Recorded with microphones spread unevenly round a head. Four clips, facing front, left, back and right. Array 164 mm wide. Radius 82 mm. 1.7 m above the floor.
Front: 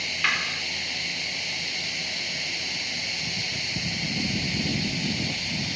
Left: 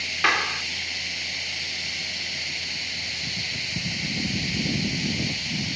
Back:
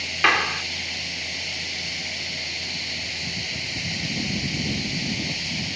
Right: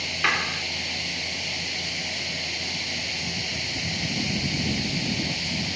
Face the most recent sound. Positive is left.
turn(degrees=165)